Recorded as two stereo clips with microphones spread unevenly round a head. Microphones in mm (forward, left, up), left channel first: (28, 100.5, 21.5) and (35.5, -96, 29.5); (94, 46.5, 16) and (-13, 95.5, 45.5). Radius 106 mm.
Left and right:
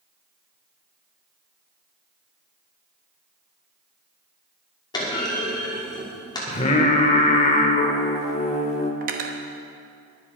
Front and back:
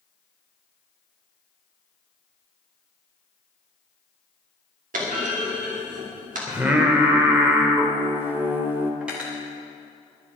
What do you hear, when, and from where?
4.9 s a clunk: 165° left, 2.5 m
6.5 s singing: 130° left, 1.1 m
9.0 s cutlery clinking: 130° right, 0.9 m